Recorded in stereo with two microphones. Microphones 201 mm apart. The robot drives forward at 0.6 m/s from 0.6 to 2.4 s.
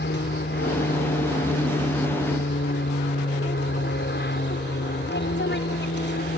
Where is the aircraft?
60° left (ahead or behind).